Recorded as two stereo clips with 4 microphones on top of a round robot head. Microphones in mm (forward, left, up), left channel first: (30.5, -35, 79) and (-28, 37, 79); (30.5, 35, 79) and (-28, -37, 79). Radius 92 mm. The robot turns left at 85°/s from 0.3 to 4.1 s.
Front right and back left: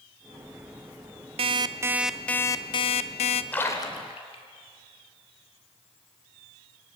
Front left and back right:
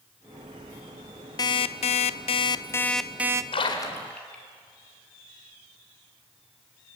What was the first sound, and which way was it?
An alarm clock, 100° left.